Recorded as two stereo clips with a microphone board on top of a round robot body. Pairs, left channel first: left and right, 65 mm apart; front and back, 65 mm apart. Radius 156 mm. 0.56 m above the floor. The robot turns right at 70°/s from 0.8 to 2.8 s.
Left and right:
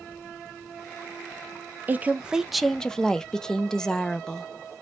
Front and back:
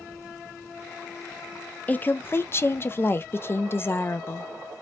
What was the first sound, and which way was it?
A woman speaking, 50° right.